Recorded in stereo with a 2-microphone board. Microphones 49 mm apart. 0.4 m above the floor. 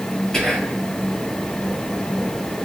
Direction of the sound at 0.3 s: 10° left (ahead or behind).